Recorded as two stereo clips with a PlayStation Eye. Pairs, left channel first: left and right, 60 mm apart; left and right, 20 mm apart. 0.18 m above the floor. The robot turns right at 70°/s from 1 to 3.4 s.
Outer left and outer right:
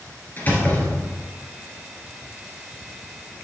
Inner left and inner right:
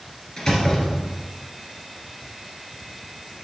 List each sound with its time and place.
0.4 s a door slam: 30° left (ahead or behind), 2.0 m; by 1.3 s 50° left (ahead or behind), 2.0 m